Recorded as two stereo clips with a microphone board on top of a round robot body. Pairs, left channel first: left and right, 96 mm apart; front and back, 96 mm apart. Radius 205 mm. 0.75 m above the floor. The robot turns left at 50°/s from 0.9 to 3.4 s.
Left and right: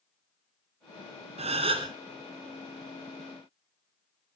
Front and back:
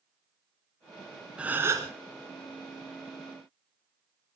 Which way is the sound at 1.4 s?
100° right.